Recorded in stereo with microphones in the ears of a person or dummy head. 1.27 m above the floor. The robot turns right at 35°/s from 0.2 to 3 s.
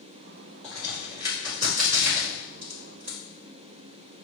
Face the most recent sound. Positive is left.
turn(degrees=-80)